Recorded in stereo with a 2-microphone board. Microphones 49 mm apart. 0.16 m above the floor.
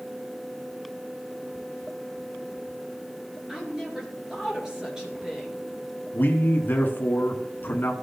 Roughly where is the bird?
No bird in this recording.